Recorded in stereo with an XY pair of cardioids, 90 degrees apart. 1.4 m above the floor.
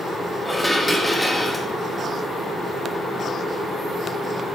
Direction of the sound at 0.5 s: 10° left.